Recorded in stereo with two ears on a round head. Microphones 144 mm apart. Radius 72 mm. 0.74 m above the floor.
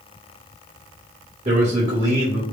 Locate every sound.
1.4 s a man speaking: 45° right (ahead or behind), 1.9 m